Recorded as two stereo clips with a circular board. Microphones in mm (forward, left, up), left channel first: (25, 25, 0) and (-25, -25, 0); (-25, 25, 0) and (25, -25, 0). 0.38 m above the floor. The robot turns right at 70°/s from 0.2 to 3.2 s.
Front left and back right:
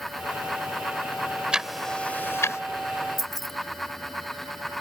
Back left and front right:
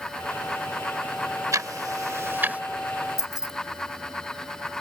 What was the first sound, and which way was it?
Ticking, 60° right.